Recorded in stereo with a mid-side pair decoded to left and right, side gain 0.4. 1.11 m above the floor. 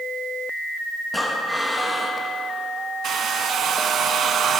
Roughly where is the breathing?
Ahead.